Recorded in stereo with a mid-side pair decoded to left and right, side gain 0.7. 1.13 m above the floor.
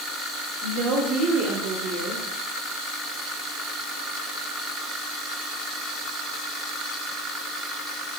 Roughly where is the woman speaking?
Ahead right.